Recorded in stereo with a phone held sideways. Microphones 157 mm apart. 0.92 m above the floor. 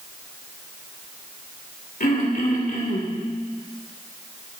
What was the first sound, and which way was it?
Throat clearing, 60° left (ahead or behind).